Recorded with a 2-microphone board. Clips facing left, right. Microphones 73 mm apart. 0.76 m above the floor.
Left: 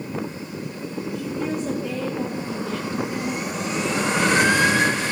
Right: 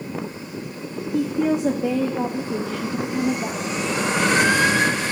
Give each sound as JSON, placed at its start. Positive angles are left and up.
{"t": 1.1, "sound": "a woman speaking", "side_deg": -70, "distance_m": 1.1}